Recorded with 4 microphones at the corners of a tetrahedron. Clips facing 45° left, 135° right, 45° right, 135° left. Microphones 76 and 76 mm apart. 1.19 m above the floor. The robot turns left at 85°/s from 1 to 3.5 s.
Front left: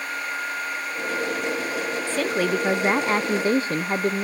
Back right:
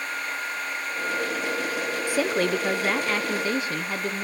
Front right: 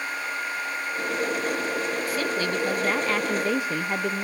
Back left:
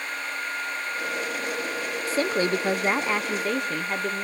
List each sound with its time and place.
2.1 s a woman speaking: 160° left, 0.5 m; by 4.2 s 40° left, 0.5 m